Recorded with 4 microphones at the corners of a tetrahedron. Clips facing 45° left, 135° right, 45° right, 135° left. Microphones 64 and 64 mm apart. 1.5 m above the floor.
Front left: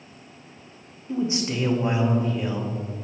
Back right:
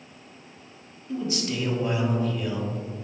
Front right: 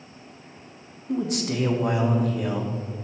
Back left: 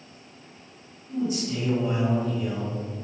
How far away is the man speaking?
About 1.3 m.